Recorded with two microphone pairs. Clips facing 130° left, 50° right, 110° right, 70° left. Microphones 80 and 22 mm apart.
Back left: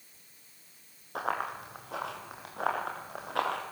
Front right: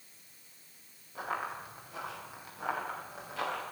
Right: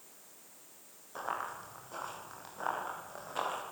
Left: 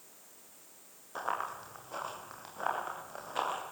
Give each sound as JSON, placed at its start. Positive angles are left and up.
{"t": 1.1, "sound": "running footsteps", "azimuth_deg": 145, "distance_m": 7.5}